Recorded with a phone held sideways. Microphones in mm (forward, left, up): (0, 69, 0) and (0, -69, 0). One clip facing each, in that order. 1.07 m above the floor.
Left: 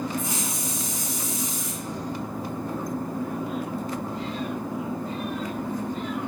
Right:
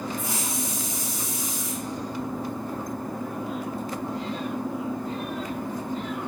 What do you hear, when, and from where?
0.2 s a hiss: 25° left (ahead or behind), 2.5 m